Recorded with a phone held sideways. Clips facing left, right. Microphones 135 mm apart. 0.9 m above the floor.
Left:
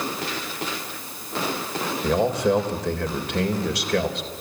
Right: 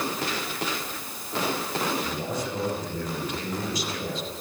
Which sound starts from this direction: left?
A man speaking, at 2.0 s.